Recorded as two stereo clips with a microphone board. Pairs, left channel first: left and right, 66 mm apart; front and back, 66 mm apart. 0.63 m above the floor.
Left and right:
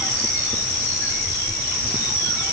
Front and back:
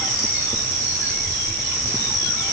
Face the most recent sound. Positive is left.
No sound to turn to.